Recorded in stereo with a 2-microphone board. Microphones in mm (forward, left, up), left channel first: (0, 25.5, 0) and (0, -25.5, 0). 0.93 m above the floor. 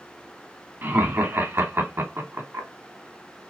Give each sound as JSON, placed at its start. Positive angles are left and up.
{"t": 0.8, "sound": "laughter", "side_deg": -40, "distance_m": 1.6}